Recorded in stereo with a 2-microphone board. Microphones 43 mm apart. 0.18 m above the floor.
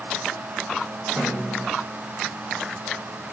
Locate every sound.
1.2 s a snare drum: 20° right (ahead or behind), 5.5 m